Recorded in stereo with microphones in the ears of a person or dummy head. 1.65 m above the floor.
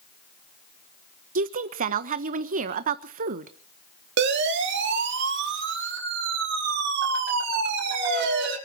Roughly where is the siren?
Right.